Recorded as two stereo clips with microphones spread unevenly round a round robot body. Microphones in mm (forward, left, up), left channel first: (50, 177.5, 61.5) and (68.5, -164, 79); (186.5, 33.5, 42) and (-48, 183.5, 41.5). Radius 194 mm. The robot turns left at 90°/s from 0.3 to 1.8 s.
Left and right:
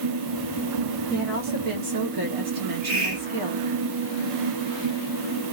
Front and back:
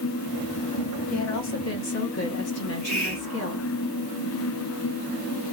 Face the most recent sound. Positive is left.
turn(degrees=-80)